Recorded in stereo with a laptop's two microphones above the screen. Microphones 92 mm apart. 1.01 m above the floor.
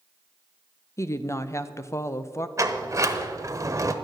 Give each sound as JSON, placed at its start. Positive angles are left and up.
{"t": 1.0, "sound": "a woman speaking", "side_deg": 30, "distance_m": 0.6}
{"t": 2.6, "sound": "a sliding door", "side_deg": -35, "distance_m": 0.8}